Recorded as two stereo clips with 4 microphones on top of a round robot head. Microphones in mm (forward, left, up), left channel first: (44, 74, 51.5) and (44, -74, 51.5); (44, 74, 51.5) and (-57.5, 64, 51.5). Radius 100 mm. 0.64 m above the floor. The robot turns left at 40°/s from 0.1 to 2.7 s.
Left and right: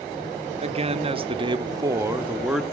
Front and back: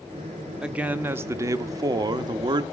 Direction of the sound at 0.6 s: 95° right.